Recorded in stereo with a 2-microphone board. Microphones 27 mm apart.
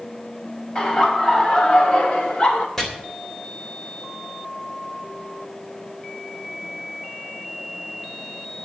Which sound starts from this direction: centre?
Chopping, at 2.8 s.